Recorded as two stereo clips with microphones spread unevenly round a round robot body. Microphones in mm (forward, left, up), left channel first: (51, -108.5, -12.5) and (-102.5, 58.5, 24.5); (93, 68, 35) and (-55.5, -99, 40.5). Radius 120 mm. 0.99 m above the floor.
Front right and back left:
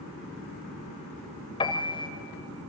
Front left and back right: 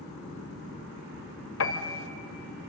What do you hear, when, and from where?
1.6 s a piano: 25° left, 1.5 m